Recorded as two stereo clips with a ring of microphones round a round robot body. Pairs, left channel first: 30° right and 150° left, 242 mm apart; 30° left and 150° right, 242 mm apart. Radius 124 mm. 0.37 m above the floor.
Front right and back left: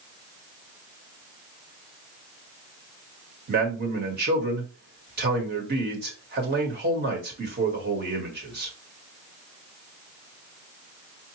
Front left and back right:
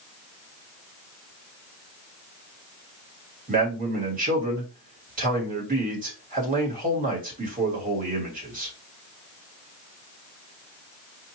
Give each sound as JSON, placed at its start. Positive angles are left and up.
{"t": 3.5, "sound": "a man speaking", "azimuth_deg": 170, "distance_m": 1.6}